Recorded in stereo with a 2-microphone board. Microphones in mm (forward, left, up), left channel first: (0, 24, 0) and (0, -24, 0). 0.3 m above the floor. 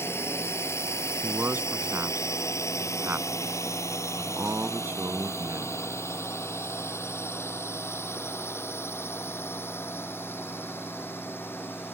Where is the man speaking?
45° right (ahead or behind).